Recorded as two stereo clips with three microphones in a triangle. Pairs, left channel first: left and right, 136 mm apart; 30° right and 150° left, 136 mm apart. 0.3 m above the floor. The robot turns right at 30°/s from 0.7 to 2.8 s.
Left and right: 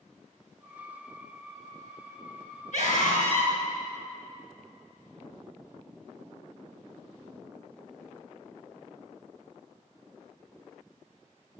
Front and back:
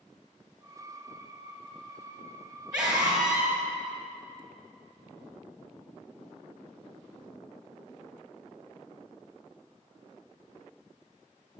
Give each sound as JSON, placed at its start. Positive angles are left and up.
{"t": 2.7, "sound": "a scream", "azimuth_deg": 65, "distance_m": 3.5}